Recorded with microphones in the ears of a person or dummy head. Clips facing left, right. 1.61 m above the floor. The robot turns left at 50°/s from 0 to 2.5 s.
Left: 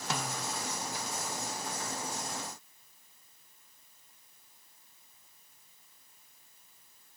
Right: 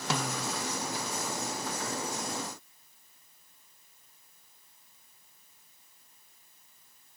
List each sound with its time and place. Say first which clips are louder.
0.1 s a snare drum: right 4 dB; 65° right (ahead or behind), 1.2 m; by 0.5 s 85° right, 1.2 m